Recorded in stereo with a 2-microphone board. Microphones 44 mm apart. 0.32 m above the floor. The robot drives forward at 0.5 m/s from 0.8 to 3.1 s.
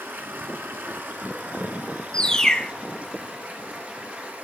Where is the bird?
20° left (ahead or behind), 0.7 m; by 2.7 s 15° left (ahead or behind), 0.9 m.